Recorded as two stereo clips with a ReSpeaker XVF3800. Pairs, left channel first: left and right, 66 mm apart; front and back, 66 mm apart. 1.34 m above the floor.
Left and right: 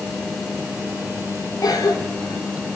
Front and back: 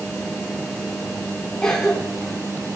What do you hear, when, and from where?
1.6 s a cough: 80° left, 5 m